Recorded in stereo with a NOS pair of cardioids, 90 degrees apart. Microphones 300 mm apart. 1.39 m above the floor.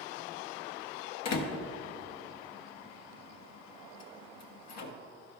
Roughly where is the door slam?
Left.